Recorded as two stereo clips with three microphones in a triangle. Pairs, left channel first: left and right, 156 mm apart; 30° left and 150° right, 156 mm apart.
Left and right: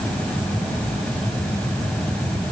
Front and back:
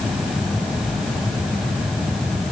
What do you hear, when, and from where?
Only background noise.